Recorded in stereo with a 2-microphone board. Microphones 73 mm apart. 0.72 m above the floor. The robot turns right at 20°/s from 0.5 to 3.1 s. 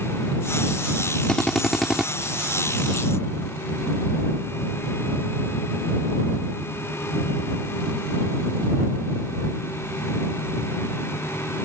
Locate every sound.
1.3 s a drill: 10° left (ahead or behind); by 2.1 s 5° right (ahead or behind)